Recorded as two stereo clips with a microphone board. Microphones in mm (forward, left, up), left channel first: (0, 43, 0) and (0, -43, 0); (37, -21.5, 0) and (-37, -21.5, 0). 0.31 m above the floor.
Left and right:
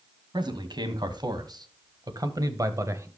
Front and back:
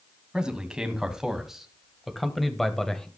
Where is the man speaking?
100° right, 2.5 m; by 3.1 s 75° right, 1.4 m.